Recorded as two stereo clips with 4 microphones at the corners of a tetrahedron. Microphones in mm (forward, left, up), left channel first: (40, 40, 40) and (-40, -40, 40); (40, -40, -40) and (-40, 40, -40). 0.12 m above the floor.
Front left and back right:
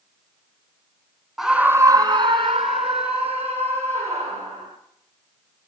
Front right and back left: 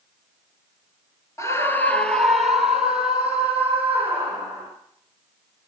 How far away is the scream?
About 1.1 m.